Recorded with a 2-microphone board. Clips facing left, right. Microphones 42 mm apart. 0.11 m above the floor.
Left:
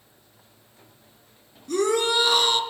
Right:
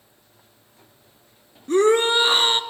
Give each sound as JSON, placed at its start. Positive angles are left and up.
{"t": 1.7, "sound": "a shout", "side_deg": -35, "distance_m": 1.6}